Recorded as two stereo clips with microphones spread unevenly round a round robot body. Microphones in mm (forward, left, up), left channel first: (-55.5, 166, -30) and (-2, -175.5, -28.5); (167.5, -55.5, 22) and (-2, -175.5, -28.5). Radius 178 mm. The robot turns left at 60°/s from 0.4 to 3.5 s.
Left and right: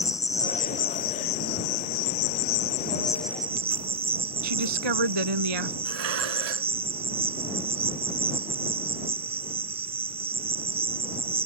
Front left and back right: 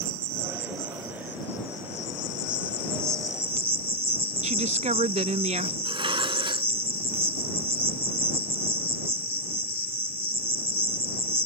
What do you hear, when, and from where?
0.0 s an insect: straight behind; by 11.5 s 5° right
4.4 s a woman speaking: 85° right
5.8 s dishes clattering: 75° right